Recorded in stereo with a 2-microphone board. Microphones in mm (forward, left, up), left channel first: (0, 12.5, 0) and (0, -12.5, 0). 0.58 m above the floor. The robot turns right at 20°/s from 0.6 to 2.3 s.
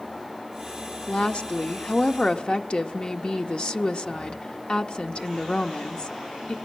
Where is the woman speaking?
55° left (ahead or behind), 1.0 m; by 6.6 s 50° left (ahead or behind), 1.0 m.